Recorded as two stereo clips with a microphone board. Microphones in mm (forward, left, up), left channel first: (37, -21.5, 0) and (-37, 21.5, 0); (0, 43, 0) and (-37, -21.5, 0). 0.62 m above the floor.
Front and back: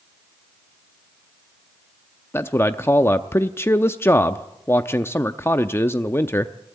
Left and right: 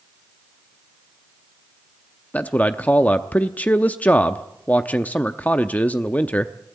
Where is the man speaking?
5° left, 0.6 m.